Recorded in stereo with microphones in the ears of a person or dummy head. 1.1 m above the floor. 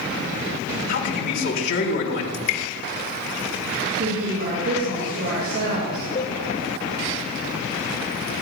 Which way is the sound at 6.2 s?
40° left (ahead or behind).